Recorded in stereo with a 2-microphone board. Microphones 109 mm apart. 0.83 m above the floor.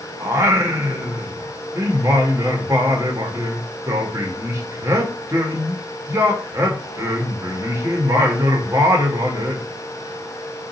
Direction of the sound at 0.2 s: 25° right (ahead or behind).